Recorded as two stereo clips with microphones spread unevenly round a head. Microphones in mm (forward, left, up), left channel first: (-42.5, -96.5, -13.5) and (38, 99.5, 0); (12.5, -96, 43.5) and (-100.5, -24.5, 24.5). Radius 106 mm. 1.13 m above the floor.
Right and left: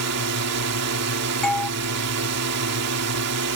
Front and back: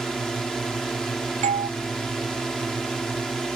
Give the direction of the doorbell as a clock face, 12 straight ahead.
7 o'clock.